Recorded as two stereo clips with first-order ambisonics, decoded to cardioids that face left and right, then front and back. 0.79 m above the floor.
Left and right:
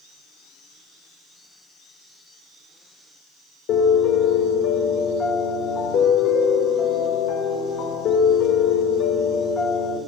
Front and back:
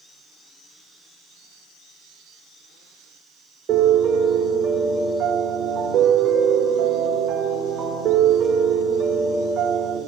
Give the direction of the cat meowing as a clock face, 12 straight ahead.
No cat meowing in this recording.